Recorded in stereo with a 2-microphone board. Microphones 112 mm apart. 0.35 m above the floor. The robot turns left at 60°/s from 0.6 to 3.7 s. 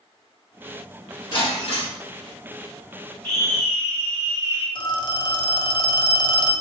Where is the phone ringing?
40° left (ahead or behind), 0.5 m.